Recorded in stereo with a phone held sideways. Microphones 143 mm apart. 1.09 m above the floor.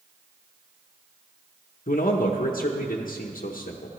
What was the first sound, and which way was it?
A man speaking, 75° left (ahead or behind).